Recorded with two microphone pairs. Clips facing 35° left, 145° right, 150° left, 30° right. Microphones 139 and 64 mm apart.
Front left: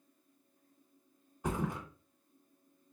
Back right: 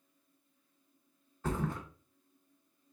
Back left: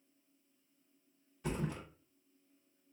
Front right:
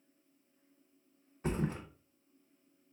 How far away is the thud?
About 0.7 m.